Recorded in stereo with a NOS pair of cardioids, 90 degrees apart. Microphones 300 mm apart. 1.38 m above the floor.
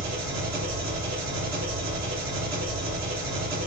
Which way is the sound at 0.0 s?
65° right.